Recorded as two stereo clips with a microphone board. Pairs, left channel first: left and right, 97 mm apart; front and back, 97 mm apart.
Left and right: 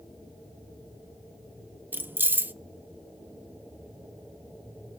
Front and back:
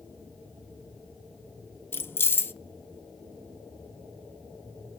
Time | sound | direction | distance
1.9 | keys jangling | 40° right | 0.7 m